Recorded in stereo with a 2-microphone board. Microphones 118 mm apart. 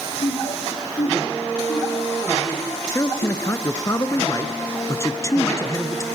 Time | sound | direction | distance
0.2 | laughter | 55° left (ahead or behind) | 3 m
2.9 | a man speaking | 25° left (ahead or behind) | 1.2 m